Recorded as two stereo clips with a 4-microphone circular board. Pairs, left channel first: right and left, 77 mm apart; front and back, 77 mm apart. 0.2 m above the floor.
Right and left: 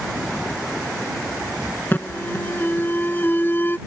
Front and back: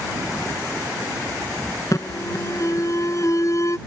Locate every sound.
1.9 s an alarm: 30° right